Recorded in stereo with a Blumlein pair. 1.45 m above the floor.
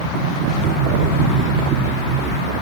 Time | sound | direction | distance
0.1 | a sliding door | 35° right | 3.5 m